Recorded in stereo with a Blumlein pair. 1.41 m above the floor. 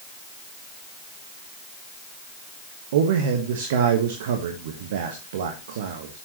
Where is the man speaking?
55° right, 1.3 m.